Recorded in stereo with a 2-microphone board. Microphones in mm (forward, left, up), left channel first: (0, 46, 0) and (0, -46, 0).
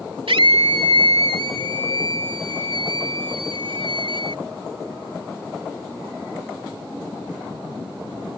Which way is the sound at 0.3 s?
75° right (ahead or behind).